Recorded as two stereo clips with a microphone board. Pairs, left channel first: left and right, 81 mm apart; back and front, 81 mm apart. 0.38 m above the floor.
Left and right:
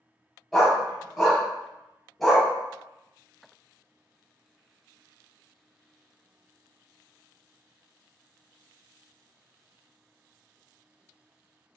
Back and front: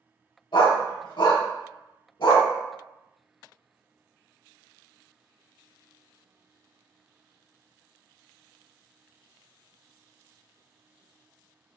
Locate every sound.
0.5 s a dog barking: straight behind, 0.8 m